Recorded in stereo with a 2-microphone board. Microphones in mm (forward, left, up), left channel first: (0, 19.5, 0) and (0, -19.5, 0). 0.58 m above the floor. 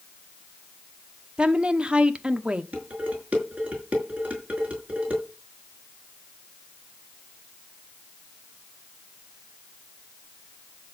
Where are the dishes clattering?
40° right (ahead or behind), 5.5 m.